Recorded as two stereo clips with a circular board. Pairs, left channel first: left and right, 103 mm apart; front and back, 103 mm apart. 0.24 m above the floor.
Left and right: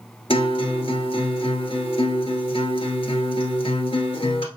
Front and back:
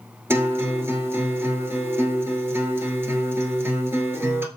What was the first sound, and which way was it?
A guitar, 115° left.